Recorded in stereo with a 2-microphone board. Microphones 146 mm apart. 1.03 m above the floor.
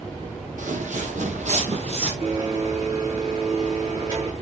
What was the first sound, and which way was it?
Footsteps, 65° right (ahead or behind).